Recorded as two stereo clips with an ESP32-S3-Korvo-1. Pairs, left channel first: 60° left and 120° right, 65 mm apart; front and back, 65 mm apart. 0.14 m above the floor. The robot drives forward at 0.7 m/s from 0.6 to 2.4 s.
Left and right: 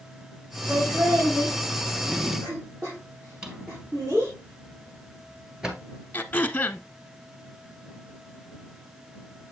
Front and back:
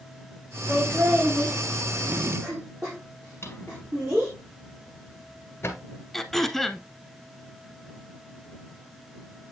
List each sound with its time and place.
0.7 s laughter: 120° right, 3.5 m; by 4.3 s 135° right, 4.5 m
3.4 s a drawer: 45° right, 1.6 m
6.1 s throat clearing: 85° left, 0.6 m